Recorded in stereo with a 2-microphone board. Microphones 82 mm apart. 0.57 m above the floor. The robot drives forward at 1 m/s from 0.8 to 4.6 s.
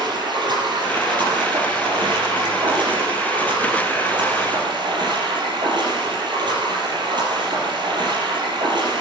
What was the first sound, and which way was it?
Running water, 65° right (ahead or behind).